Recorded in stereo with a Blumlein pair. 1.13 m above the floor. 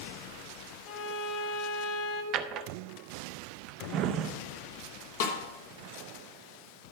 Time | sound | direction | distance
0.9 | a violin | 35° left | 1.3 m
2.3 | a drawer | 35° right | 0.6 m
5.2 | a snare drum | 55° left | 1.5 m